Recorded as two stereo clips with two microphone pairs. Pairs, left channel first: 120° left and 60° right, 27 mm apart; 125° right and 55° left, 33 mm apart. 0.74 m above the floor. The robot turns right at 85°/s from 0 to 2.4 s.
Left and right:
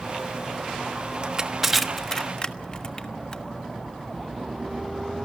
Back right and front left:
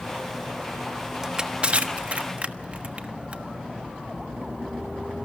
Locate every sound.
1.2 s crushing: 20° right, 1.3 m; by 3.4 s 80° left, 1.3 m